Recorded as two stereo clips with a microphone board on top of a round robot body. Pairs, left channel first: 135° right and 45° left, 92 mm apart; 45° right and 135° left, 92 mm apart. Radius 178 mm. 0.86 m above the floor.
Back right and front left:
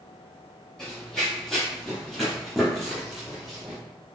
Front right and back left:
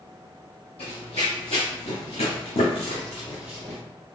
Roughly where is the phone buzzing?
No phone buzzing in this recording.